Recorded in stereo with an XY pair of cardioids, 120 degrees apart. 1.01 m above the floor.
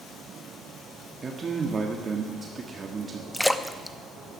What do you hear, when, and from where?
1.2 s a man speaking: 35° right, 1.5 m
3.3 s a splash: 5° left, 0.7 m